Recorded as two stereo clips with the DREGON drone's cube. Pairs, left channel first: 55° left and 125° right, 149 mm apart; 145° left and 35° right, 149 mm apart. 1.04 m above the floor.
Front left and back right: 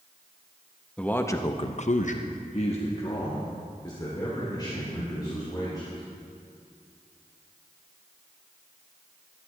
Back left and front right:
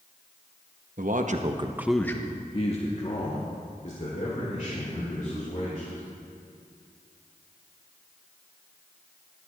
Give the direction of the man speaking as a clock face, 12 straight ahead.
1 o'clock.